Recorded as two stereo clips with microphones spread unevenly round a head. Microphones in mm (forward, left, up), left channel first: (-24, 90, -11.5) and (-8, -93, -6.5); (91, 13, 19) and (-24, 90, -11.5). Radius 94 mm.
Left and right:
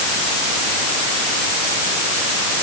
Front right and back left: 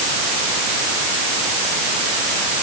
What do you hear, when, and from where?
Only background noise.